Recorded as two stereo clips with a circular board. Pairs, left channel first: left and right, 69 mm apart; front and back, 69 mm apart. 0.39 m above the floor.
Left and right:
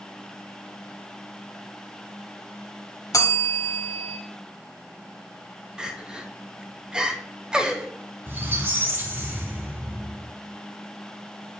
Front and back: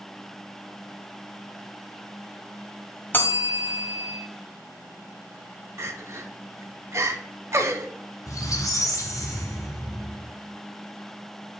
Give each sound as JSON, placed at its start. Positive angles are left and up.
{"t": 3.1, "sound": "a bell", "azimuth_deg": 60, "distance_m": 1.0}
{"t": 5.8, "sound": "crying", "azimuth_deg": -165, "distance_m": 0.7}
{"t": 8.3, "sound": "a squeak", "azimuth_deg": -35, "distance_m": 1.3}